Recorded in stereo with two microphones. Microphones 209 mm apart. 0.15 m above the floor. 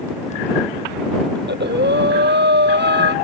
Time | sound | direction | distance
1.4 | breathing | 60° right (ahead or behind) | ?